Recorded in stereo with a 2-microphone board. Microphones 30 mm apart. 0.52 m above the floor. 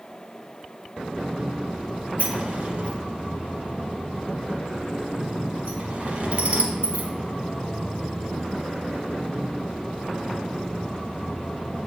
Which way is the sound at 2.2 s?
45° right (ahead or behind).